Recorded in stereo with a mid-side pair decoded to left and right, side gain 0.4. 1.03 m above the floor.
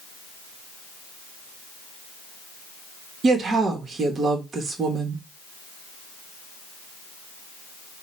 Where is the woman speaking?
50° right, 1.0 m.